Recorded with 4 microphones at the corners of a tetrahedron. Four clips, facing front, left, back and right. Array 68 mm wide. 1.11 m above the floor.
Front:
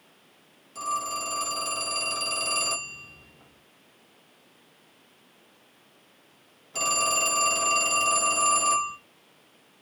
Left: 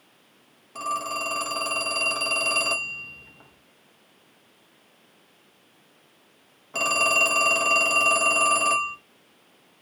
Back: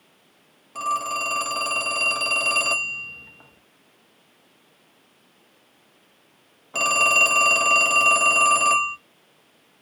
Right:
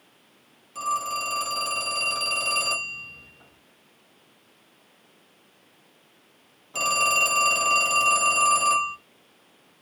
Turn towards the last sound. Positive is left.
turn(degrees=150)